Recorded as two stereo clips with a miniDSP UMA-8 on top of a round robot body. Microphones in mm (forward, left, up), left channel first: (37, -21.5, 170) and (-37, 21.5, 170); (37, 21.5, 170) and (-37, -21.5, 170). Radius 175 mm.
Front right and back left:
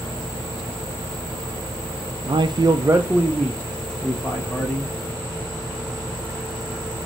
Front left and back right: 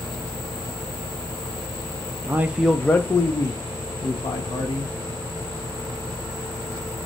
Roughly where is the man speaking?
Behind left.